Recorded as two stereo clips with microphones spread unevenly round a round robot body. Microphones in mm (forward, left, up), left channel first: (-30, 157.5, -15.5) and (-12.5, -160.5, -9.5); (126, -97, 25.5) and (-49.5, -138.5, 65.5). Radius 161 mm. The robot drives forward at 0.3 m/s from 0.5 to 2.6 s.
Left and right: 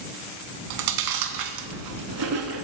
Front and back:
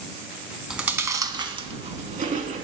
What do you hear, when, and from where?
0.7 s chewing: 85° right, 0.6 m; by 2.6 s 130° right, 0.8 m